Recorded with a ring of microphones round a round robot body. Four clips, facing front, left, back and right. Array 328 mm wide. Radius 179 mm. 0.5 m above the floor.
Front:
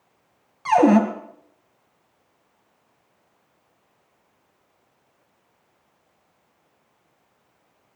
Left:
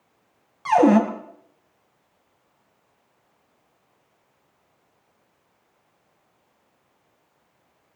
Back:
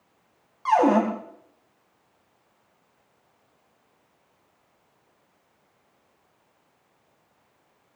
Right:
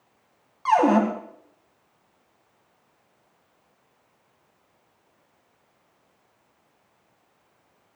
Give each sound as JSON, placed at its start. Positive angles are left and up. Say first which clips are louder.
{"t": 0.7, "sound": "a cupboard door", "louder": "left 3 dB, front 3 dB", "azimuth_deg": 40, "distance_m": 1.9}